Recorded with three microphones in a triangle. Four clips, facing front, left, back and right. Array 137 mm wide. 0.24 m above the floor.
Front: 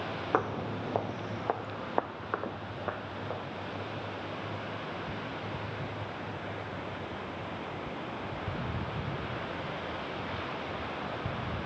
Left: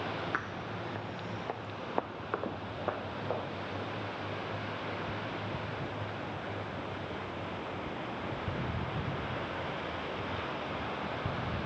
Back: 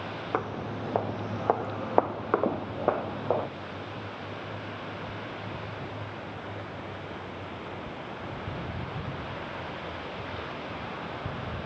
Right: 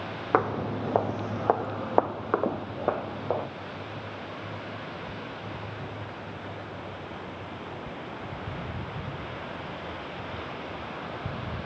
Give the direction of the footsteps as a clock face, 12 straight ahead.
3 o'clock.